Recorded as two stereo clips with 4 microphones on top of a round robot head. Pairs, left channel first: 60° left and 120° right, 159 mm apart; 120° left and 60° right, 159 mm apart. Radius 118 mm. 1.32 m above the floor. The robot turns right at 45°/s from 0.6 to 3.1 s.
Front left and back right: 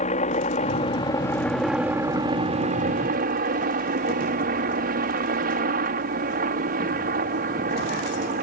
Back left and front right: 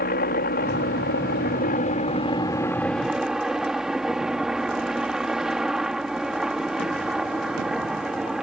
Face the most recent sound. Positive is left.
turn(degrees=-145)